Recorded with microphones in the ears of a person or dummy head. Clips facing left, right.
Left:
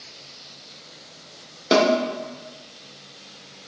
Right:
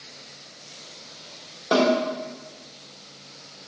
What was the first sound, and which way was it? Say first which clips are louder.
A snare drum: left 2 dB; 30° left (ahead or behind).